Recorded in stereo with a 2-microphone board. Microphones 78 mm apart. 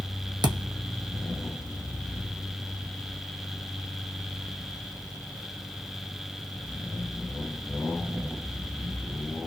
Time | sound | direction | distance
0.4 | a thud | 60° right (ahead or behind) | 1.0 m